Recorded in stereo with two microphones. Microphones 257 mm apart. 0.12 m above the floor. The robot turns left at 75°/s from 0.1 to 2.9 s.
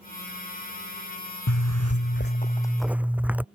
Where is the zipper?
100° left; by 3.5 s 5° right.